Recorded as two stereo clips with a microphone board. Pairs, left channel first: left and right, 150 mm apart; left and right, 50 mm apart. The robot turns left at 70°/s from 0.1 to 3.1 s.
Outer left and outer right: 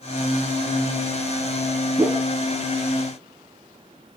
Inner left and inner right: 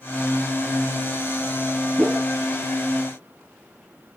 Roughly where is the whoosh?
Centre.